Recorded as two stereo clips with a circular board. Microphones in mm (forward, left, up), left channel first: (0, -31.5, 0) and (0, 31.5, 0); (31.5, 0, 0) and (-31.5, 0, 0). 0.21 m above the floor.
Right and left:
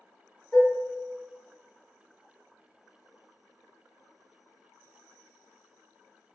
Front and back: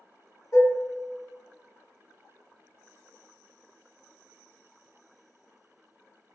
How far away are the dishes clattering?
About 1.1 m.